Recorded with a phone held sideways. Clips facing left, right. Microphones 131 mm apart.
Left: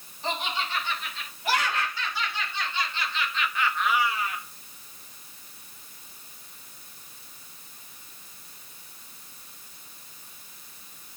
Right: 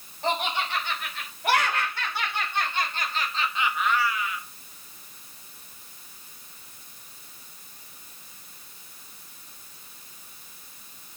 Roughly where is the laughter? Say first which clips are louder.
Right 4 dB; right.